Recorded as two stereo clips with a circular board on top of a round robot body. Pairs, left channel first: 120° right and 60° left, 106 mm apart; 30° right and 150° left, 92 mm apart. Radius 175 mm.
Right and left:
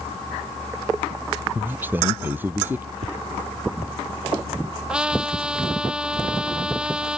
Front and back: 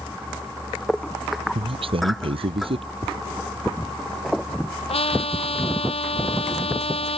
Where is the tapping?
90° left.